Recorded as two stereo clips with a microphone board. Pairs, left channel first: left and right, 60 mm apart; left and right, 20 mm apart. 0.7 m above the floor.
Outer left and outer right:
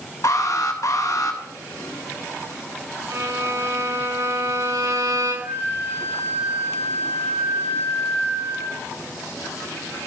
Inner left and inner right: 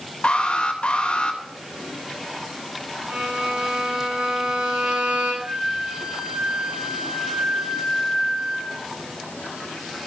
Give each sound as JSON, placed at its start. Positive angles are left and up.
{"t": 0.2, "sound": "an alarm", "side_deg": 60, "distance_m": 3.0}
{"t": 3.1, "sound": "a violin", "side_deg": -55, "distance_m": 8.5}
{"t": 5.4, "sound": "a flute", "side_deg": -70, "distance_m": 8.5}